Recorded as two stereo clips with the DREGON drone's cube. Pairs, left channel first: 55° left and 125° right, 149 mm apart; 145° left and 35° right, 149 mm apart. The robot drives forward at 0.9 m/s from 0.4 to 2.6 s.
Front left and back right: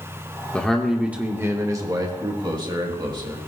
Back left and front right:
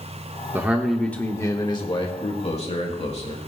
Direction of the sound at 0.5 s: 10° right.